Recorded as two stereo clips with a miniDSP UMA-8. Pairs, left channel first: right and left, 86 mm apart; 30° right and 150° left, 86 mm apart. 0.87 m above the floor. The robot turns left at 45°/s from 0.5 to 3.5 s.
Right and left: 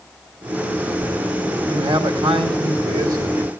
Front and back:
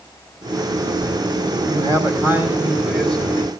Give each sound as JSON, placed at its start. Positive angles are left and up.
{"t": 1.7, "sound": "a man speaking", "azimuth_deg": 115, "distance_m": 4.5}